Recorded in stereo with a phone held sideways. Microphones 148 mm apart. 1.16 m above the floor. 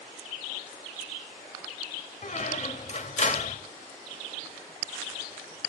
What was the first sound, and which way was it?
A squeak, 50° left (ahead or behind).